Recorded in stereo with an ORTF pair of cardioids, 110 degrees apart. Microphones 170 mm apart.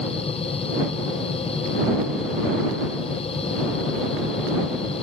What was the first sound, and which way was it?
A machine running, 35° left.